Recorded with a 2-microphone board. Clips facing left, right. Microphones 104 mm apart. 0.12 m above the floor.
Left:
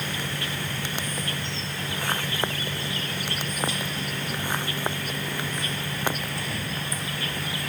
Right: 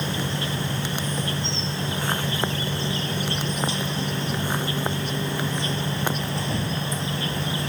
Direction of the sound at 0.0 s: 25° right (ahead or behind).